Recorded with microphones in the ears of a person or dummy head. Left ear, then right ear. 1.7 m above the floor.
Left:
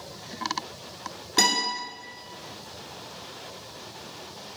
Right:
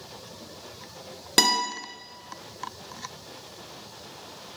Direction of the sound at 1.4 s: 45° right (ahead or behind).